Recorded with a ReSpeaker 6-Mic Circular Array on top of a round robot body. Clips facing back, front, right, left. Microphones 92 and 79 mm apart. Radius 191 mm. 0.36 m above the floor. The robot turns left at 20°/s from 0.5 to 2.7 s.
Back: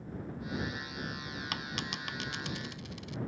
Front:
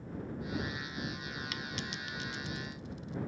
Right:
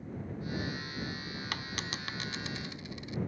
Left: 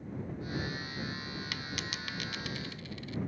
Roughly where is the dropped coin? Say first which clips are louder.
Back 2 dB, right 1 dB; behind right.